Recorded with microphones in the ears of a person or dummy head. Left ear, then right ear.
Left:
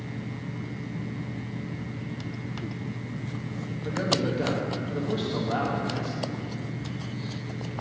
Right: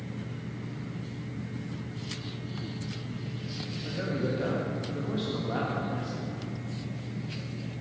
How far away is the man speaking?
About 1.4 m.